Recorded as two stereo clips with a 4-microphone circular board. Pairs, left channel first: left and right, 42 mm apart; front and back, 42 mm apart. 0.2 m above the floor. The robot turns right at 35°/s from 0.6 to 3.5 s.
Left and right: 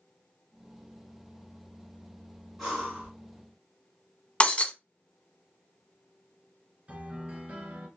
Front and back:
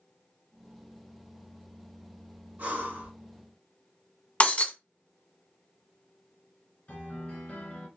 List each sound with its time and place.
2.6 s breathing: 175° left, 1.6 m; by 3.1 s 165° right, 1.6 m
4.4 s breaking glass: 40° left, 0.5 m
6.9 s a piano: 40° right, 1.4 m